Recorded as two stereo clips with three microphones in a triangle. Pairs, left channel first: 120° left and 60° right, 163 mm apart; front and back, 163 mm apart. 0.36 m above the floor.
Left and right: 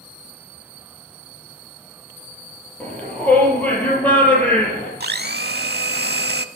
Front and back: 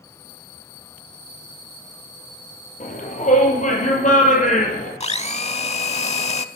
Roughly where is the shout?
Ahead left.